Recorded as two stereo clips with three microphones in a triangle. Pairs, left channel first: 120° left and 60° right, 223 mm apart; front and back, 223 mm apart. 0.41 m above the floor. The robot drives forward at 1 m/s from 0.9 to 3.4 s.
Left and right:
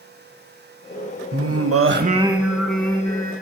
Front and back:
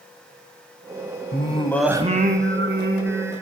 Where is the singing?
40° right, 0.7 m; by 3.3 s 165° right, 1.6 m.